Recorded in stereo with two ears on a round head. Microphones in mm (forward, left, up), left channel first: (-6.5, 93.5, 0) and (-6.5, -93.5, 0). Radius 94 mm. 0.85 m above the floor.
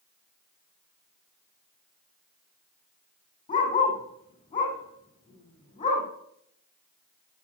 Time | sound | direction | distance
3.5 | a dog barking | 20° left (ahead or behind) | 8.5 m